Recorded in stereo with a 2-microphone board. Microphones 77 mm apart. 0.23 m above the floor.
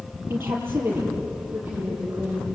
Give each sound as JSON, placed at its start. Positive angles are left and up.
{"t": 0.3, "sound": "a woman speaking", "side_deg": -30, "distance_m": 6.0}